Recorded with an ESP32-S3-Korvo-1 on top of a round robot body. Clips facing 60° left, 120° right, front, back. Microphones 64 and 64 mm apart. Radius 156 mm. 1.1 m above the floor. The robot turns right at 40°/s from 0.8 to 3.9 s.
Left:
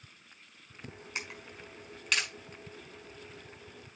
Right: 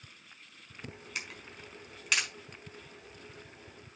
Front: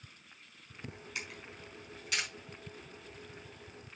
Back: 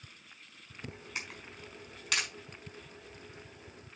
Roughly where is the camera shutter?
Behind left.